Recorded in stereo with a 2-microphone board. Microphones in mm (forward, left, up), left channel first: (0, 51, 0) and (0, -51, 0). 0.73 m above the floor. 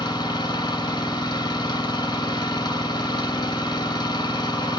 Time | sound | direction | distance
0.0 | an engine running | 45° left (ahead or behind) | 2.5 m